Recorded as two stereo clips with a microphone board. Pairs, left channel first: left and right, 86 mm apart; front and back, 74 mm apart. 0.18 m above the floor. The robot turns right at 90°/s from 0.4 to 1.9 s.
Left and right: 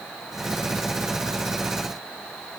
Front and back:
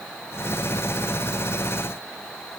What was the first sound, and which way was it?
Only background noise.